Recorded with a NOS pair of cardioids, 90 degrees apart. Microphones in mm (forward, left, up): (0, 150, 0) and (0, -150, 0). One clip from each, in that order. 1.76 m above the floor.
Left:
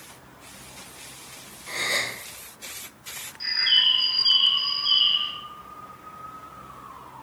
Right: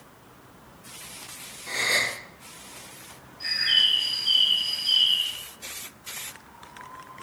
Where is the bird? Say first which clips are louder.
Left 1 dB; 45° left, 3 m.